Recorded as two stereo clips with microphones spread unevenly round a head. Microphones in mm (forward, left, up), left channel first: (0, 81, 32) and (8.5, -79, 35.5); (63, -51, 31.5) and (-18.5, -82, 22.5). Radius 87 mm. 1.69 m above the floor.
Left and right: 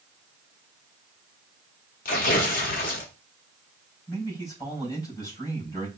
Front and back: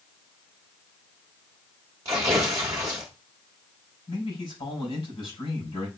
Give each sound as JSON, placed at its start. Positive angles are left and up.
{"t": 2.0, "sound": "tearing paper", "azimuth_deg": 135, "distance_m": 0.9}
{"t": 4.1, "sound": "a man speaking", "azimuth_deg": 25, "distance_m": 4.0}